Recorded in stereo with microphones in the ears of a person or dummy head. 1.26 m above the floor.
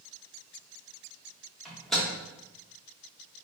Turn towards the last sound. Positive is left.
turn(degrees=5)  # may be behind; listen again after turning